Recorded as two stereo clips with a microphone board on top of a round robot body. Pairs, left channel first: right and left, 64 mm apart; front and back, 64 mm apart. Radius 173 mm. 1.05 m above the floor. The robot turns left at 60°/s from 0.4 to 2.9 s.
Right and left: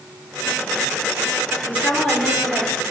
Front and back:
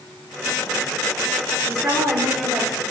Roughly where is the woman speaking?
Behind right.